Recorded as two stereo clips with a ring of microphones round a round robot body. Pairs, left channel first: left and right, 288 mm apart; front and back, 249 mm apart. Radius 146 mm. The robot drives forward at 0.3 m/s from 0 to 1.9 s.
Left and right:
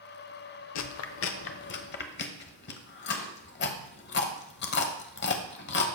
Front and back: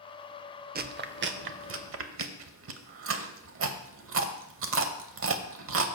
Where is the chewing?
125° left, 0.6 m; by 5.8 s 145° left, 0.9 m.